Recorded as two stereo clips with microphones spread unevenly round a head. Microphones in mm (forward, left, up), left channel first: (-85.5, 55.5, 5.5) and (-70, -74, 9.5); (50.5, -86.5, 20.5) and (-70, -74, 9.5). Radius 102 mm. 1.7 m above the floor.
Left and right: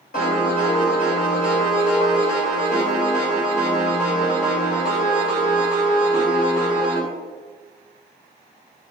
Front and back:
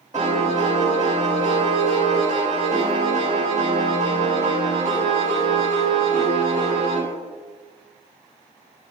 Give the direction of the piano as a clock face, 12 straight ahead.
9 o'clock.